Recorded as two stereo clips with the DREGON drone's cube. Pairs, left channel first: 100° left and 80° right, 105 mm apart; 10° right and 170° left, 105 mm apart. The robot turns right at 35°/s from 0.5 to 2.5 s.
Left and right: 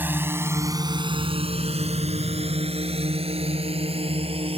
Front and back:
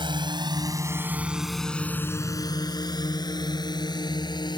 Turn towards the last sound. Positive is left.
turn(degrees=-55)